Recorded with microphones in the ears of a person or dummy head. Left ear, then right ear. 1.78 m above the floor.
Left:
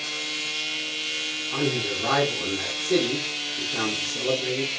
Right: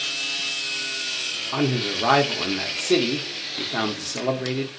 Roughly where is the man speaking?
Right.